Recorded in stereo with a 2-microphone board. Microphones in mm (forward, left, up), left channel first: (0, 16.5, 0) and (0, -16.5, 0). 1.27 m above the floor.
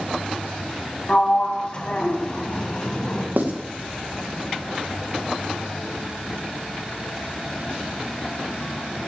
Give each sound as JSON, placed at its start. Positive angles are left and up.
{"t": 1.1, "sound": "a sliding door", "side_deg": 35, "distance_m": 1.3}
{"t": 3.4, "sound": "writing", "side_deg": -70, "distance_m": 1.3}